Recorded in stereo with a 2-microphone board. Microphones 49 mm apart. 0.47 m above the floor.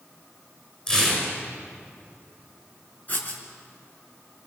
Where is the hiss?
I don't hear a hiss.